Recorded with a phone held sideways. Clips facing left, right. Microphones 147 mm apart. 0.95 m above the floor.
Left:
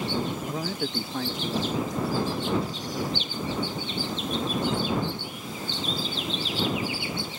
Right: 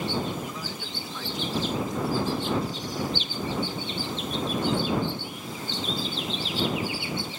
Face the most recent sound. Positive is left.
turn(degrees=45)  # may be behind; listen again after turning